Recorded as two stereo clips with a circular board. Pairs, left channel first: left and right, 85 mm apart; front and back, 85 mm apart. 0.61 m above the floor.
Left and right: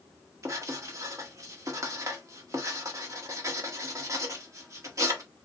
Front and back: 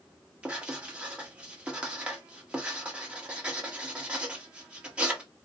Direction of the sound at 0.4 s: 110° right.